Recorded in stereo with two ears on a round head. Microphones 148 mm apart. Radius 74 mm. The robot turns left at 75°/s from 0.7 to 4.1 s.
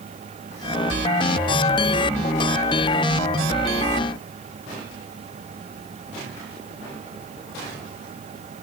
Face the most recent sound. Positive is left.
No sound to turn to.